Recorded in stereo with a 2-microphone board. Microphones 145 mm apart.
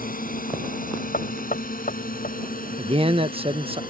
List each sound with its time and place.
0.0 s a drone: 75° left (ahead or behind)
1.1 s knocking: 85° left
2.8 s a man speaking: 40° right (ahead or behind)